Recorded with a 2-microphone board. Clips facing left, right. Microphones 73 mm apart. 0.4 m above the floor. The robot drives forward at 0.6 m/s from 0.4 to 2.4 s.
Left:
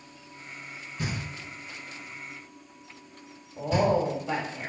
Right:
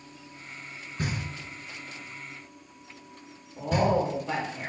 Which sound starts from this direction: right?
Knocking, at 1.0 s.